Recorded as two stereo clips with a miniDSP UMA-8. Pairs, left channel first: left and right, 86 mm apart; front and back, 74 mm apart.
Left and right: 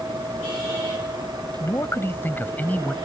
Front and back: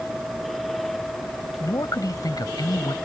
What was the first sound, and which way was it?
A man speaking, 35° left.